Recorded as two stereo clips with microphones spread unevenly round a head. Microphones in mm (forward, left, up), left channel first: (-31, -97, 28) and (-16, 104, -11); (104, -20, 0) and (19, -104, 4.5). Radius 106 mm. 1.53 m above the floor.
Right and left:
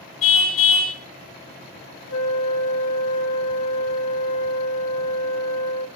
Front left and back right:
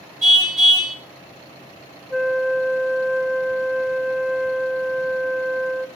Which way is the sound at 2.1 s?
65° right.